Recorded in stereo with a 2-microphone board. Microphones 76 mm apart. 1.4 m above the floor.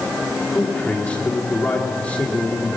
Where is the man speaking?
20° left (ahead or behind), 3 m.